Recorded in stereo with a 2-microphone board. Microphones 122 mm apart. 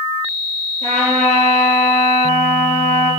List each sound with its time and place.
0.8 s a trumpet: 60° right (ahead or behind), 3.5 m